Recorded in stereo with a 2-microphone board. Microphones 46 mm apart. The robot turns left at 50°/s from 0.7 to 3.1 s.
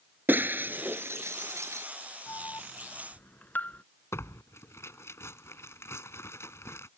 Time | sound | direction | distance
0.3 | breaking glass | 45° right (ahead or behind) | ?
2.3 | an alarm | 80° left | ?
4.1 | tearing paper | 70° left (ahead or behind) | ?